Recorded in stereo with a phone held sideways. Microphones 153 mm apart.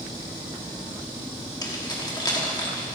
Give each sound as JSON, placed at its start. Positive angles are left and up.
{"t": 1.6, "sound": "keys jangling", "side_deg": 25, "distance_m": 2.0}